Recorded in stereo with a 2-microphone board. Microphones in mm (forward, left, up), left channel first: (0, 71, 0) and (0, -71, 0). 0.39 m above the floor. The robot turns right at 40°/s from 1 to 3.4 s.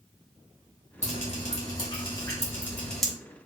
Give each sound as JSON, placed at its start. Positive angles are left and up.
{"t": 1.0, "sound": "dripping", "side_deg": 55, "distance_m": 2.5}